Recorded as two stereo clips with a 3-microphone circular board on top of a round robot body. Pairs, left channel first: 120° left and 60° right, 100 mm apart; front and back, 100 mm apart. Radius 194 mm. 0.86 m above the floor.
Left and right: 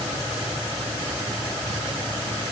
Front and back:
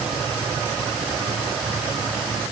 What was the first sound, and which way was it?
Only background noise.